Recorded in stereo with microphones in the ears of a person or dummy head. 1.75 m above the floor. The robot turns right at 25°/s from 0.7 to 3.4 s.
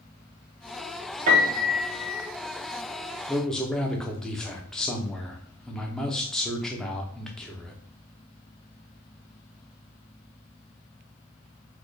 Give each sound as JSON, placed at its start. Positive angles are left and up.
{"t": 1.3, "sound": "a piano", "side_deg": -25, "distance_m": 0.9}
{"t": 3.3, "sound": "a man speaking", "side_deg": 0, "distance_m": 0.8}